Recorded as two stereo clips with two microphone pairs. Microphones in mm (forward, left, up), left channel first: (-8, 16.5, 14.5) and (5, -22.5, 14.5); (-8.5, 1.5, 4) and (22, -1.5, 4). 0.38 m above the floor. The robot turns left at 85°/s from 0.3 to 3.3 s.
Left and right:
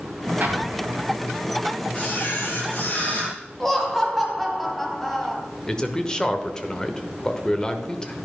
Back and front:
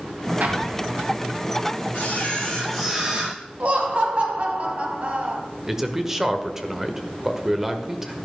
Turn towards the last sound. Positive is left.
turn(degrees=55)